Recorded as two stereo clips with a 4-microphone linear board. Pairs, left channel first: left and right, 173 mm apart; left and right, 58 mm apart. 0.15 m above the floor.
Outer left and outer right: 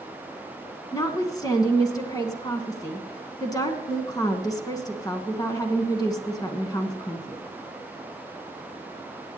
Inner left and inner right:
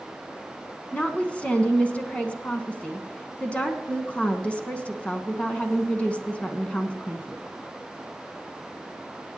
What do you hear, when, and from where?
0.9 s a woman speaking: 20° left (ahead or behind), 1.2 m